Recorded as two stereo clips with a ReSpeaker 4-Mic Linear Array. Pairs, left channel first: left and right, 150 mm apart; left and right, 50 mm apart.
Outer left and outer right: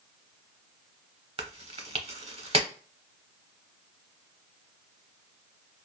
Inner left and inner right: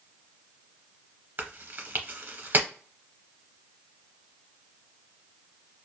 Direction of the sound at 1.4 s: 45° right (ahead or behind).